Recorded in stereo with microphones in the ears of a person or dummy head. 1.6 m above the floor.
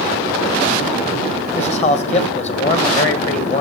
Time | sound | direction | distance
1.6 | a man speaking | 45° left (ahead or behind) | 1.2 m